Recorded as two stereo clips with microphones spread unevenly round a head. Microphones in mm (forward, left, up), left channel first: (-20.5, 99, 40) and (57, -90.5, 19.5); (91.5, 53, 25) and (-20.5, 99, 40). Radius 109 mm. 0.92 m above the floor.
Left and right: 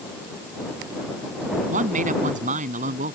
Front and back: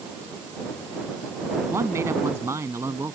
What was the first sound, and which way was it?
A man speaking, 125° right.